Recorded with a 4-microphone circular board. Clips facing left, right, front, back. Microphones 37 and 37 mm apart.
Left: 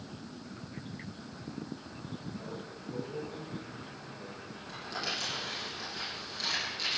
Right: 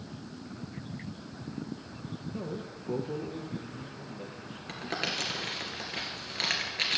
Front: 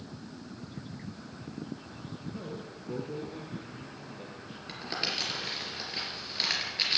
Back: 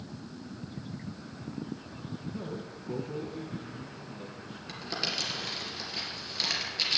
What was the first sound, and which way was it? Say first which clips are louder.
A man speaking: right 4 dB, back 2 dB; 85° right.